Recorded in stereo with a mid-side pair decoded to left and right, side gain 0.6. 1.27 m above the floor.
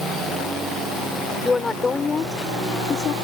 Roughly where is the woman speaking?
Ahead.